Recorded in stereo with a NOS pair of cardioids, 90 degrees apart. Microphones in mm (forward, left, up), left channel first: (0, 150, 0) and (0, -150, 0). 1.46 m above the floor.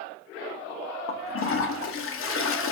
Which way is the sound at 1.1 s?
45° left.